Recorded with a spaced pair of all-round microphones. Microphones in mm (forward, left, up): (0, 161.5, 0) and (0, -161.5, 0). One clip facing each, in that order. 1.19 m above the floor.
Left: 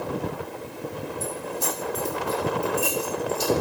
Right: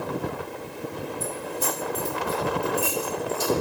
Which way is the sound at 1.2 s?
65° right (ahead or behind).